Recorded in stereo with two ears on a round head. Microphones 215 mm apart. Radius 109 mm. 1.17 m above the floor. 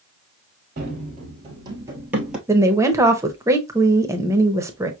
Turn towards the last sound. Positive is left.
turn(degrees=-10)  # may be behind; listen again after turning